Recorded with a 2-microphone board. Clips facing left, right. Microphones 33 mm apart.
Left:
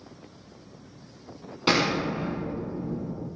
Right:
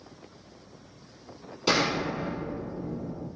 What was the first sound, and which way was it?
An explosion, 30° left (ahead or behind).